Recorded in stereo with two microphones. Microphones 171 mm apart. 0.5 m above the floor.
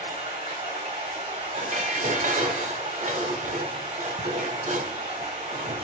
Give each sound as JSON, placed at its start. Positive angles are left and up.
{"t": 0.0, "sound": "running water", "side_deg": -35, "distance_m": 3.0}
{"t": 1.6, "sound": "dishes clattering", "side_deg": -45, "distance_m": 0.9}